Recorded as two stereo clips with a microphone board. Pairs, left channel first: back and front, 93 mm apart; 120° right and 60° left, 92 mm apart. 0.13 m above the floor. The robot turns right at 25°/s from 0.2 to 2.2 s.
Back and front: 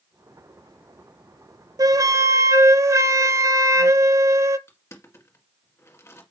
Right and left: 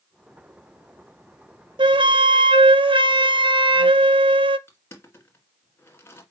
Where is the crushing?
160° right, 1.9 m.